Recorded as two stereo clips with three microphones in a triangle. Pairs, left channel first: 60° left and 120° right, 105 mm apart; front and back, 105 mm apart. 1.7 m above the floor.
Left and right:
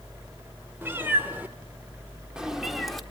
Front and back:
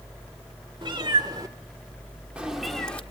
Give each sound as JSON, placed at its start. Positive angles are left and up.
{"t": 0.8, "sound": "a cat meowing", "azimuth_deg": 175, "distance_m": 1.9}